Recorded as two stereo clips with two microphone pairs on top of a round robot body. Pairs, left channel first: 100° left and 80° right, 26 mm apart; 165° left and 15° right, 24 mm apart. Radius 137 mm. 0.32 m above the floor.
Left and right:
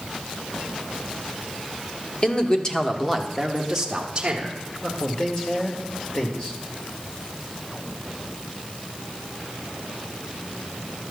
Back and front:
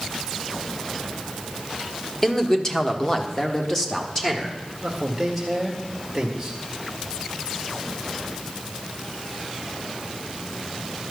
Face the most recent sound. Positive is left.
turn(degrees=65)